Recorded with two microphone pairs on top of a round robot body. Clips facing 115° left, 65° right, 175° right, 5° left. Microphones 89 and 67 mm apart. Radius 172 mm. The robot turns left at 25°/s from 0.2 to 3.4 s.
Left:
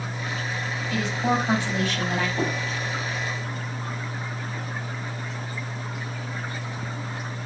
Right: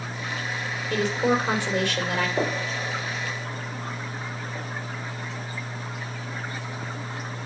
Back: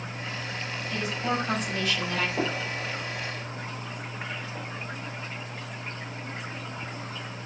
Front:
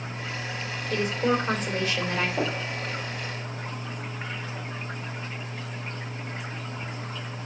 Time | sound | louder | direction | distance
0.9 | a woman speaking | right 2 dB, front 5 dB | 30° right | 3 m
2.4 | a gunshot | right 1 dB, front 1 dB | 85° right | 3.5 m